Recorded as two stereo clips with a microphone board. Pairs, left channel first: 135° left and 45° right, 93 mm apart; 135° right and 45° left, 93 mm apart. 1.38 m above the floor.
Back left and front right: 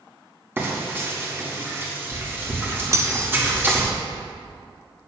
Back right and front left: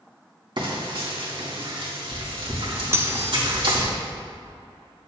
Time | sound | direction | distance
0.6 | frying | 20° left | 2.0 m
2.9 | cutlery clinking | 5° right | 0.6 m